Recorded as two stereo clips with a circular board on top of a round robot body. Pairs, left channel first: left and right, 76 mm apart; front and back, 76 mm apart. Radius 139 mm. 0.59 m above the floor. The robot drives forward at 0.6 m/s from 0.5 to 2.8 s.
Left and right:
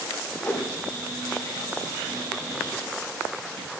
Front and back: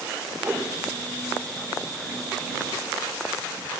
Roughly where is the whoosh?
Behind left.